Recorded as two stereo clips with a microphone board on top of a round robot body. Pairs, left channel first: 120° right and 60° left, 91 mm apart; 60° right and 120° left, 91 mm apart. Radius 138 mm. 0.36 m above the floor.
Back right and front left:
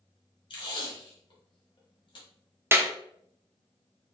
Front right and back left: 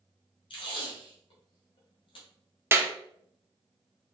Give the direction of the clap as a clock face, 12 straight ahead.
9 o'clock.